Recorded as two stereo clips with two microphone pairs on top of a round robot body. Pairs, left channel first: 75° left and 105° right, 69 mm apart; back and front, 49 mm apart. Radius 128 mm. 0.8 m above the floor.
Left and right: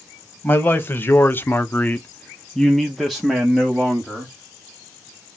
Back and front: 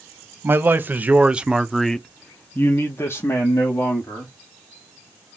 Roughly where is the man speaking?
Ahead.